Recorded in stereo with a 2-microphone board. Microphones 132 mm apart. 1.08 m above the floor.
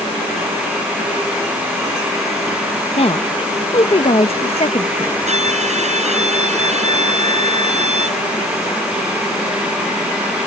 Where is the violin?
60° right (ahead or behind).